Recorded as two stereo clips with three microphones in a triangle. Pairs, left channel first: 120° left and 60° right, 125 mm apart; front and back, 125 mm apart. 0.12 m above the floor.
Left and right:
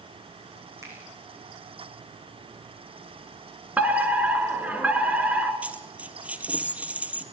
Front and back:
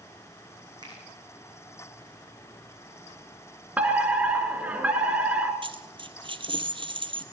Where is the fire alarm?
120° right, 2 m.